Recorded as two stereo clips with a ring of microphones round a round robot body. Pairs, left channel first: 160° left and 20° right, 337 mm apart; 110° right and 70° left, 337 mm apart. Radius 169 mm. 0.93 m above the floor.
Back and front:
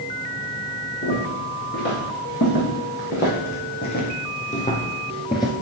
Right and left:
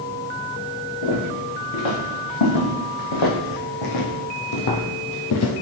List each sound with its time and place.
1.0 s footsteps: 145° right, 4 m; by 5.5 s 125° right, 1.2 m